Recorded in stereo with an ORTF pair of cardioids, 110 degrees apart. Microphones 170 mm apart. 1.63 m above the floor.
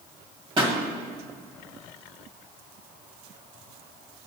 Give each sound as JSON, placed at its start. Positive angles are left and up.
{"t": 0.6, "sound": "a pop", "azimuth_deg": -30, "distance_m": 1.4}